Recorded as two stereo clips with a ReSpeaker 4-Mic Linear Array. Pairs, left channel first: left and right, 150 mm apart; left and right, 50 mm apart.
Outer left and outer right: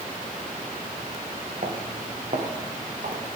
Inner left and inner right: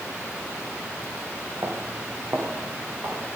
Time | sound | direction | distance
1.6 | footsteps | 60° right (ahead or behind) | 3.5 m